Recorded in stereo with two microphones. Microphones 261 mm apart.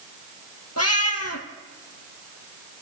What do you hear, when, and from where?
0.8 s a cat meowing: 70° left (ahead or behind), 1.7 m